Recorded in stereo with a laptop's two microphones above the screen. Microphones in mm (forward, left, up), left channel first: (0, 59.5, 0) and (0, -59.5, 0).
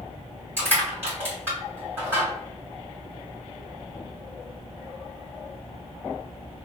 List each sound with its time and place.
0.6 s crushing: 15° right (ahead or behind), 1.7 m